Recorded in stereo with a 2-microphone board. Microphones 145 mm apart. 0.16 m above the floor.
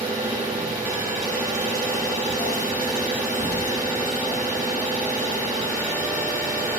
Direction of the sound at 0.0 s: 25° right (ahead or behind).